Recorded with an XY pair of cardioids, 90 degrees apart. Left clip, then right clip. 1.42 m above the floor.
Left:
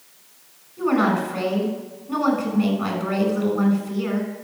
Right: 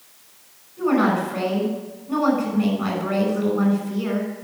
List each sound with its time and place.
0.8 s a woman speaking: 10° left, 5.5 m